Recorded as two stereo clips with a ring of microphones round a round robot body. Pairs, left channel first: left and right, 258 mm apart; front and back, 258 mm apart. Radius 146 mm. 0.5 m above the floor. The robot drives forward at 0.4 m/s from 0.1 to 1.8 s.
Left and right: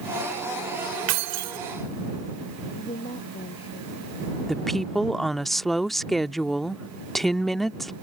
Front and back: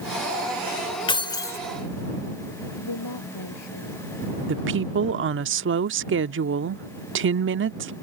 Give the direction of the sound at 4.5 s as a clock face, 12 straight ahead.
6 o'clock.